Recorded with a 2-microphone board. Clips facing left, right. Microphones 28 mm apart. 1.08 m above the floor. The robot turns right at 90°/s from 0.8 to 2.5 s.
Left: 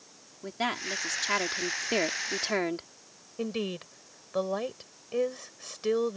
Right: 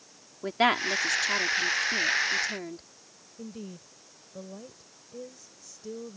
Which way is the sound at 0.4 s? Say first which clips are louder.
Right 7 dB; 30° right.